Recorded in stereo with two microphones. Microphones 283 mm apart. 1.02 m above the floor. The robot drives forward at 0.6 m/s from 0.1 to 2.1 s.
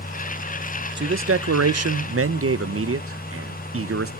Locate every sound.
1.0 s a man speaking: 40° right (ahead or behind), 0.7 m; by 4.1 s 50° right (ahead or behind), 0.5 m